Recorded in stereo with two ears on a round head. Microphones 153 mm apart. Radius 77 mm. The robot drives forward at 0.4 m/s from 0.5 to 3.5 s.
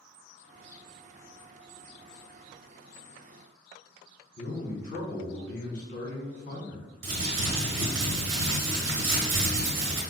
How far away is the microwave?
I don't hear a microwave.